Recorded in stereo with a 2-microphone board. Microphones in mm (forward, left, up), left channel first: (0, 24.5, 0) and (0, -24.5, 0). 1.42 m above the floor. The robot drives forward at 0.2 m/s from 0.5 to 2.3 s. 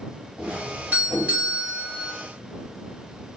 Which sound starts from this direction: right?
A doorbell, at 0.4 s.